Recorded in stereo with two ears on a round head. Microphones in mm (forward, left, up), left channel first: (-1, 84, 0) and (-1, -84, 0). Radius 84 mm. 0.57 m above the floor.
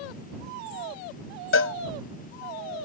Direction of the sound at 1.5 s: 70° left (ahead or behind).